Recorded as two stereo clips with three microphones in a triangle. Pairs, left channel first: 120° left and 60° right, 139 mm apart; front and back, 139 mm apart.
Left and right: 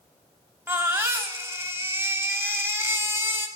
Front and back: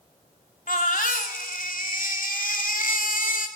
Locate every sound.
0.7 s a baby crying: 10° left, 1.2 m